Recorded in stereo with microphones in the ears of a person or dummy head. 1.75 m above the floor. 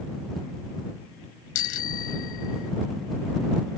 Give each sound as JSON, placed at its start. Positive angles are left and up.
{"t": 1.6, "sound": "a bicycle bell", "side_deg": 85}